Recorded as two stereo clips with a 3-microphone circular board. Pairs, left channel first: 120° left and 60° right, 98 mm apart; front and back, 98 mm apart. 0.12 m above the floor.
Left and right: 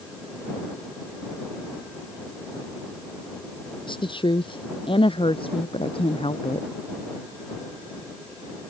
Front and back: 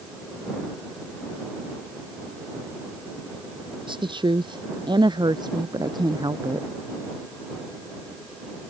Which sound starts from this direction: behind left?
A woman speaking, at 3.9 s.